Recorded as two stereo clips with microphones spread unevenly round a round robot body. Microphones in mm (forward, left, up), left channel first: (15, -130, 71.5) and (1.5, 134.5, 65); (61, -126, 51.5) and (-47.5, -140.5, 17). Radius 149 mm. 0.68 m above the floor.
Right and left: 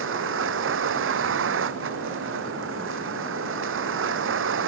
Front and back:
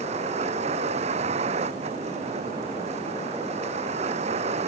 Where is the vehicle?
140° left.